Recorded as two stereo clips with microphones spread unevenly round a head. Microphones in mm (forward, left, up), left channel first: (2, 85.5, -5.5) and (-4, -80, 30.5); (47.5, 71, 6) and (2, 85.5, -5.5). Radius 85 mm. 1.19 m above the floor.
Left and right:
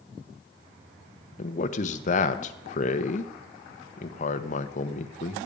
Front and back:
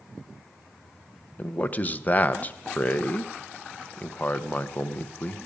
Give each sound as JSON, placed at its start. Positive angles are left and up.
{"t": 1.4, "sound": "a man speaking", "azimuth_deg": 40, "distance_m": 0.9}